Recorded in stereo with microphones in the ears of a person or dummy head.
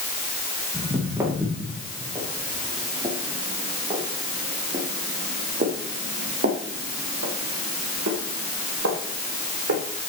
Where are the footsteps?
10° right (ahead or behind), 4 m; by 9.8 s 70° right (ahead or behind), 3.5 m.